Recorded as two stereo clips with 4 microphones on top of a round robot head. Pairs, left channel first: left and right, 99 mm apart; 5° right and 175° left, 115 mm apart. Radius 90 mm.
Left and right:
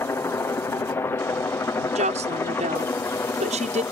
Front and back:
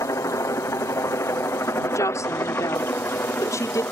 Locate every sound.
0.0 s a helicopter: 35° left; by 3.9 s 50° left
1.9 s a woman speaking: 75° right